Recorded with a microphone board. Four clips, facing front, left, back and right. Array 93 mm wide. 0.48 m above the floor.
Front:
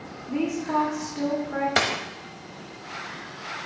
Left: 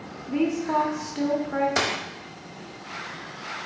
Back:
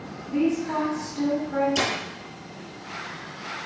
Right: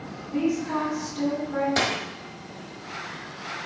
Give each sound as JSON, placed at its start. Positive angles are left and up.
{"t": 0.3, "sound": "a woman speaking", "azimuth_deg": 70, "distance_m": 1.7}
{"t": 1.8, "sound": "a dropped coin", "azimuth_deg": 10, "distance_m": 1.3}